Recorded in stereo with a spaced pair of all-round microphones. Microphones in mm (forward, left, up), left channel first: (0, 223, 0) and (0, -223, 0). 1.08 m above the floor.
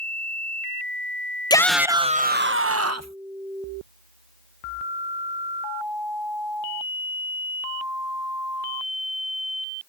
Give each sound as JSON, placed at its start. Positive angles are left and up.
{"t": 1.5, "sound": "a shout", "side_deg": 10}